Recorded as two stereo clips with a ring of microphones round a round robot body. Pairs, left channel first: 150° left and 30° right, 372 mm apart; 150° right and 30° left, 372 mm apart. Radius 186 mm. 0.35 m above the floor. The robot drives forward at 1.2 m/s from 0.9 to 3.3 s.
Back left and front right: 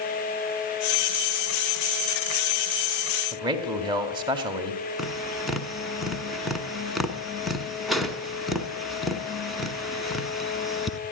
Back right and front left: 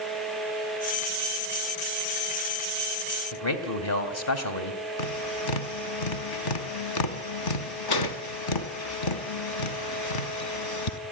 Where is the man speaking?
105° right, 2.5 m.